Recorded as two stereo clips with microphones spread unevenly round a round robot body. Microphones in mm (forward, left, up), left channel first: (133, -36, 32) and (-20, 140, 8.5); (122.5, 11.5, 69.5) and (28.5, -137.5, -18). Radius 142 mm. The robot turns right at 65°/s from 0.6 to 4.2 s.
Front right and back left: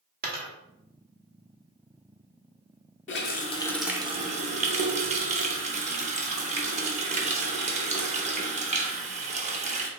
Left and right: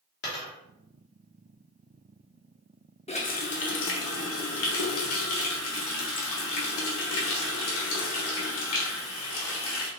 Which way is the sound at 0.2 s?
75° left.